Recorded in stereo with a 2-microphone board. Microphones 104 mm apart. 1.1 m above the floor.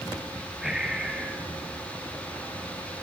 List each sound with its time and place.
0.6 s breathing: 5° right (ahead or behind), 4.5 m